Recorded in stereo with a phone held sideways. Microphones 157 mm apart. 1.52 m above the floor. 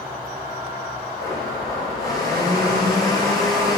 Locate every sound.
1.2 s a blender: 20° left (ahead or behind), 3.5 m